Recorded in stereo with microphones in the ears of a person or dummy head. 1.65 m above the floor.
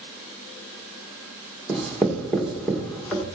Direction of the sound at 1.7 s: Centre (ahead or behind).